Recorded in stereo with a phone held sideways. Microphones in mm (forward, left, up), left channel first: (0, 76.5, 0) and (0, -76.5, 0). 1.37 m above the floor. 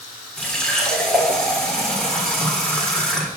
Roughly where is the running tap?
Centre.